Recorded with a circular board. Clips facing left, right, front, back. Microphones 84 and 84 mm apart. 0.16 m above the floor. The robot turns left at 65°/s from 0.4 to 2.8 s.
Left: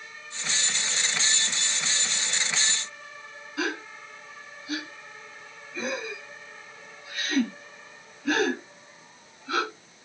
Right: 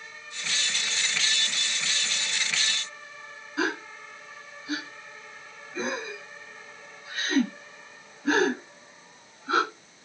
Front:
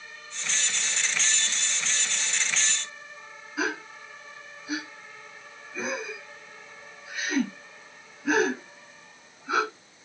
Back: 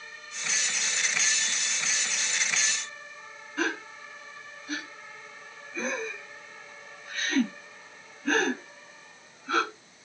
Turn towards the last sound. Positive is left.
turn(degrees=-70)